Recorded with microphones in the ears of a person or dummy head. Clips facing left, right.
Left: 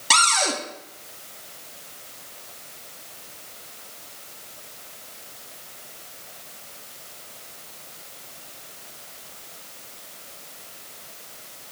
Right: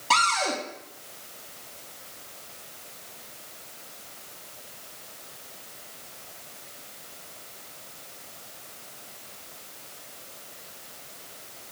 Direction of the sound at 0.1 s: 25° left (ahead or behind).